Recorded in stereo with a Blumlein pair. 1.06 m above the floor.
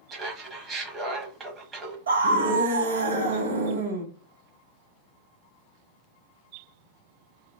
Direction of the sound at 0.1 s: 20° right.